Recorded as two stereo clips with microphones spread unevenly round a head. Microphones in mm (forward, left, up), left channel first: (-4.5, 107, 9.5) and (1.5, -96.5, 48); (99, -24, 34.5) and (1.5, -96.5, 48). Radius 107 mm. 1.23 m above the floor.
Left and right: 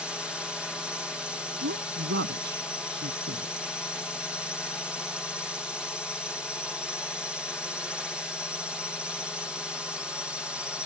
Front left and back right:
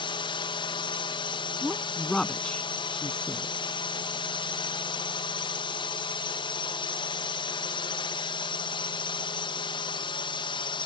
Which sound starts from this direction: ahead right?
A woman speaking, at 1.6 s.